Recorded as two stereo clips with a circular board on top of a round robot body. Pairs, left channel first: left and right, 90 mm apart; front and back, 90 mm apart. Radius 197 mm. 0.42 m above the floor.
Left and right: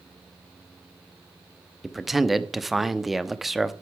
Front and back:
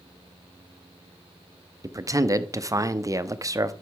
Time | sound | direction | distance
1.8 | a man speaking | 175° right | 1.2 m